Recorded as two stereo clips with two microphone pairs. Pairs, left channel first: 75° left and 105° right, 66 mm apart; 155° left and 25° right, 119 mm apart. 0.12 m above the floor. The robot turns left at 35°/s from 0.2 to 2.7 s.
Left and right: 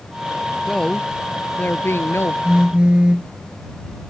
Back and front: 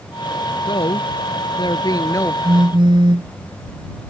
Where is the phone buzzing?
30° right; by 3.3 s 40° right.